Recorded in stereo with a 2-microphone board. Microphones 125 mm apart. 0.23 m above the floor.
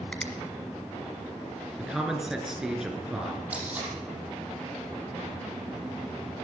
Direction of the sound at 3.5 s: 10° right (ahead or behind).